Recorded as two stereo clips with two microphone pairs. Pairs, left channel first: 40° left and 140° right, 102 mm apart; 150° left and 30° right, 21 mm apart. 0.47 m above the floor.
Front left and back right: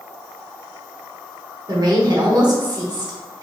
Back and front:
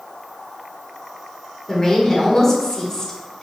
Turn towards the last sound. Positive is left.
turn(degrees=-155)